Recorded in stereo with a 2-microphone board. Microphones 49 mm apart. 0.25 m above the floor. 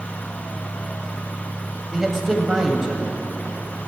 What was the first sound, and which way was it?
A man speaking, 10° right (ahead or behind).